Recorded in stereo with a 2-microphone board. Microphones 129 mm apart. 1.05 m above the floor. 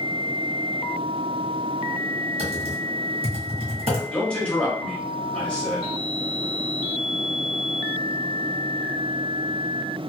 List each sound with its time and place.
2.4 s typing on a keyboard: 55° right (ahead or behind), 1.4 m
4.1 s a man speaking: 10° left (ahead or behind), 1.2 m